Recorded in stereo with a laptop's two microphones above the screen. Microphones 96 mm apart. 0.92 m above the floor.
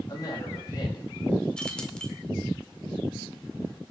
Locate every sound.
0.1 s a woman speaking: 45° left (ahead or behind), 5.5 m; by 1.3 s 50° left (ahead or behind), 4.5 m
1.6 s keys jangling: 10° left (ahead or behind), 1.7 m